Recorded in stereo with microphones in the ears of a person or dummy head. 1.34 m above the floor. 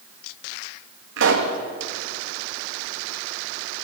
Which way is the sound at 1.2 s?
65° right (ahead or behind).